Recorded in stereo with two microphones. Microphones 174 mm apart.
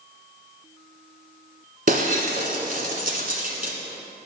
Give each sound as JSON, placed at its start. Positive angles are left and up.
{"t": 1.9, "sound": "breaking glass", "side_deg": -55, "distance_m": 1.4}